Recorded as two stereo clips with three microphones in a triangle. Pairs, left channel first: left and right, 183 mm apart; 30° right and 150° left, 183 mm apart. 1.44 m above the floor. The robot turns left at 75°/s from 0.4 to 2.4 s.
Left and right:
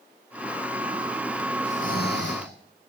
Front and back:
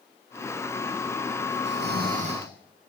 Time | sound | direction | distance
1.6 | snoring | 145° left | 7.5 m